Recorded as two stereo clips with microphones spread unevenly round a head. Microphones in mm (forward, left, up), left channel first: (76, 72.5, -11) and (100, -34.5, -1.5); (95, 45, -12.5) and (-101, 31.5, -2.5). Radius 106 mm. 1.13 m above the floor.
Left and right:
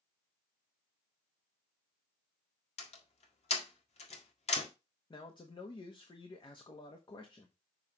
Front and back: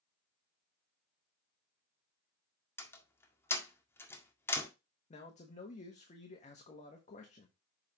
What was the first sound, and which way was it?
A door slam, 85° left.